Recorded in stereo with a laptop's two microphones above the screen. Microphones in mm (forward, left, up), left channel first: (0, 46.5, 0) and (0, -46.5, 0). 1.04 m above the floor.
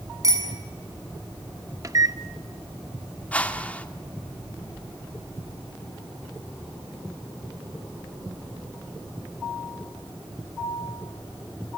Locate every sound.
0.2 s a bicycle bell: 35° right (ahead or behind), 7.5 m
1.8 s a microwave: 35° right (ahead or behind), 1.0 m
3.3 s a whoosh: 15° left (ahead or behind), 2 m